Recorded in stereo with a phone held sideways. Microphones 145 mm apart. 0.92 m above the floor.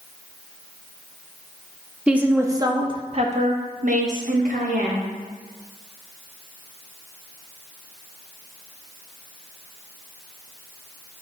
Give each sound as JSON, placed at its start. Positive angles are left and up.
{"t": 2.1, "sound": "a woman speaking", "side_deg": -5, "distance_m": 0.8}